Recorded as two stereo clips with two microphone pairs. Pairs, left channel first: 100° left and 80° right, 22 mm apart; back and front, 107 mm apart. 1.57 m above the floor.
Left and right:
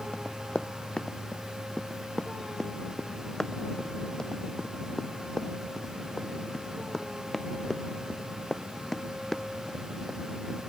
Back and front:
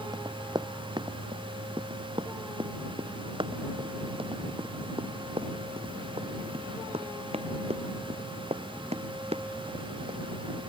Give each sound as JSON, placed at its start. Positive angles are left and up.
{"t": 0.1, "sound": "running footsteps", "azimuth_deg": 50}